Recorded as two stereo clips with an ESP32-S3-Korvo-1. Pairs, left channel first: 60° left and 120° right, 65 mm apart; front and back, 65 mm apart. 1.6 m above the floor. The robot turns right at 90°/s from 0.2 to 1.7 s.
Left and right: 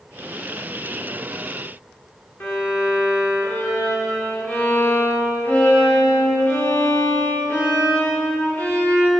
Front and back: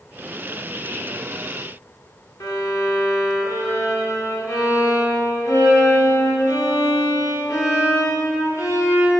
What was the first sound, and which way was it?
A violin, 10° left.